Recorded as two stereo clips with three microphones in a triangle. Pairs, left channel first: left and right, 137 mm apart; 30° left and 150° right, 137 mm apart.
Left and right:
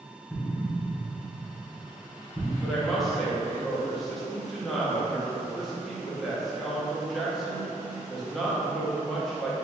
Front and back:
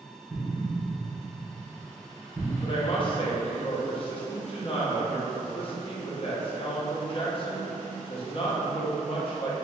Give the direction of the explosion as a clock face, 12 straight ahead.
7 o'clock.